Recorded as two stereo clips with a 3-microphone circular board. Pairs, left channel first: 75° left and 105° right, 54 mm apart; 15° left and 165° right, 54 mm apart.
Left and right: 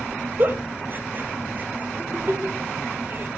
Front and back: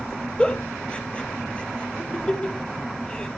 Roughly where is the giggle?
Ahead right.